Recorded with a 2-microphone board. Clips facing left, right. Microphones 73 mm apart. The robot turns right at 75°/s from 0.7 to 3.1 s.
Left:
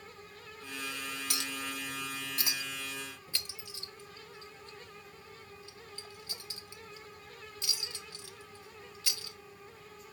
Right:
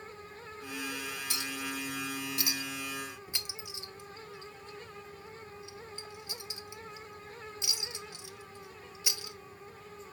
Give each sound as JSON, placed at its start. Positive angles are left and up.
{"t": 1.3, "sound": "a clink", "side_deg": 55, "distance_m": 0.7}